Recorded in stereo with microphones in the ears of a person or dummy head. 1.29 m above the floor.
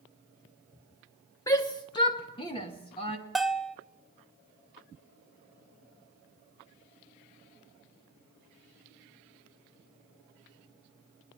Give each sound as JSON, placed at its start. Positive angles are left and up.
{"t": 1.5, "sound": "a shout", "side_deg": 15, "distance_m": 1.2}
{"t": 3.4, "sound": "a bell", "side_deg": 5, "distance_m": 0.7}